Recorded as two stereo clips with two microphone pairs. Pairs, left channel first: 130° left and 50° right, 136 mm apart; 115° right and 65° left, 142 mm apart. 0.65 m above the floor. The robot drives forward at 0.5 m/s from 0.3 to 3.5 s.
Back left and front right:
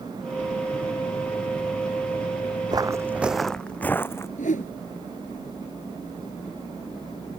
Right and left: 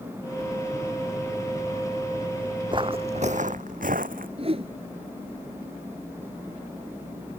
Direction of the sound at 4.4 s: 110° left.